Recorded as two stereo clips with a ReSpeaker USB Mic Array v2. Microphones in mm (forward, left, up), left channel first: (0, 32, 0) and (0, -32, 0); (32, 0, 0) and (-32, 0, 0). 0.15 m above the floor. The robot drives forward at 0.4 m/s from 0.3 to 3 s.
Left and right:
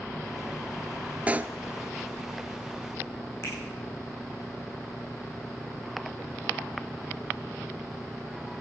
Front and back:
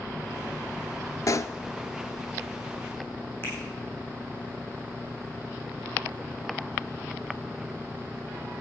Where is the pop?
25° right, 0.6 m; by 1.6 s 30° right, 0.5 m.